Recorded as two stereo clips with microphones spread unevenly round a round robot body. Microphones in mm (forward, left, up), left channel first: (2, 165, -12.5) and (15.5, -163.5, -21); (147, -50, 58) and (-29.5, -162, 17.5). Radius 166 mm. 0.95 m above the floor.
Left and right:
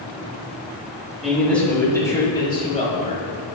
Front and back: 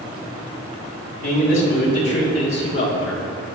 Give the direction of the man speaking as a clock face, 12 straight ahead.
12 o'clock.